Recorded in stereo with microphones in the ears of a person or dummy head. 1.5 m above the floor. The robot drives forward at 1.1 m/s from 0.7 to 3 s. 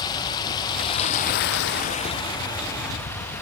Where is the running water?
20° left (ahead or behind), 1.0 m; by 3.4 s 15° left (ahead or behind), 1.7 m.